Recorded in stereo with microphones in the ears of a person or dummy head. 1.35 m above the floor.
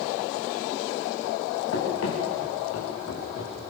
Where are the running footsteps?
70° left (ahead or behind), 5.5 m; by 3.6 s 75° left (ahead or behind), 6 m.